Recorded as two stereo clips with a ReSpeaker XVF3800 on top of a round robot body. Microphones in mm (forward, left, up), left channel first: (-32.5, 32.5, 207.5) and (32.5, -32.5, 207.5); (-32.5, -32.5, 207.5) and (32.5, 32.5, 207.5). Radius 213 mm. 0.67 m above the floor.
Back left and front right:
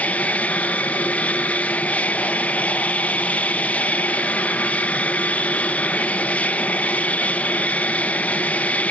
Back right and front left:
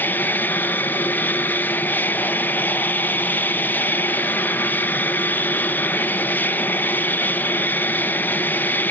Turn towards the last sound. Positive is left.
turn(degrees=-170)